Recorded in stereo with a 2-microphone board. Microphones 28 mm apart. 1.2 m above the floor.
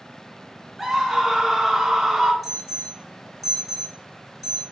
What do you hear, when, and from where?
0.8 s a scream: centre (ahead or behind), 1.6 m
2.4 s an alarm: 10° left (ahead or behind), 2.5 m